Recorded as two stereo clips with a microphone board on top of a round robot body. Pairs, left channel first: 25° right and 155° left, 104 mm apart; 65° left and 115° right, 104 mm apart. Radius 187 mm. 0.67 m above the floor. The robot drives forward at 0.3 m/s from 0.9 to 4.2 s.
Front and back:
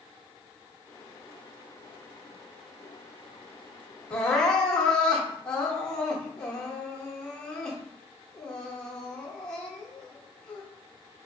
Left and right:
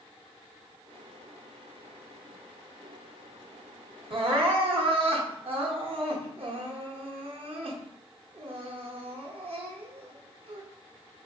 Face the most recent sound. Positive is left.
turn(degrees=-105)